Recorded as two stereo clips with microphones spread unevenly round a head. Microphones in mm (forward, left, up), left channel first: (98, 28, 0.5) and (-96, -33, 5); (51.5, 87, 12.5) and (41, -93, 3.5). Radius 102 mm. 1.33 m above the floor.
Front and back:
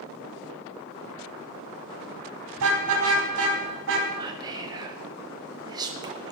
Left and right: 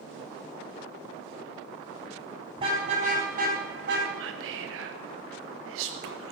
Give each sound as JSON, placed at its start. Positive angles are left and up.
{"t": 2.6, "sound": "a car horn", "azimuth_deg": -160, "distance_m": 3.5}
{"t": 4.2, "sound": "whispering", "azimuth_deg": -90, "distance_m": 1.0}